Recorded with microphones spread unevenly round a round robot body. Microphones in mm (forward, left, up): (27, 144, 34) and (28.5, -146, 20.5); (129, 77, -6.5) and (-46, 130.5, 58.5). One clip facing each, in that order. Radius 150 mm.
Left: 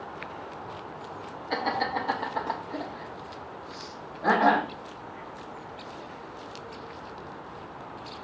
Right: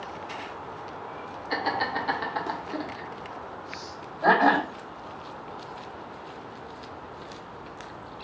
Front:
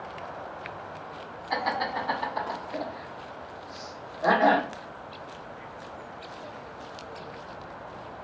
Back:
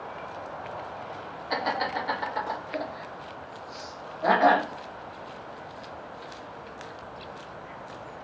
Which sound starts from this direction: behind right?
Laughter, at 1.5 s.